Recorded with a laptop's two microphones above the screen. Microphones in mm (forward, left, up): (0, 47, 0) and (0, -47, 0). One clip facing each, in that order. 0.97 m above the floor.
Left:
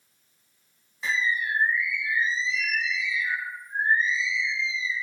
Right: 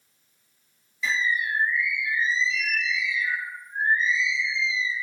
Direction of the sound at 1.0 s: 50° left (ahead or behind).